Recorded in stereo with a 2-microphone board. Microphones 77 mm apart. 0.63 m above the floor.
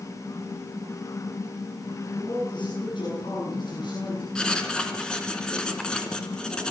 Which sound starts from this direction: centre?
Writing, at 4.3 s.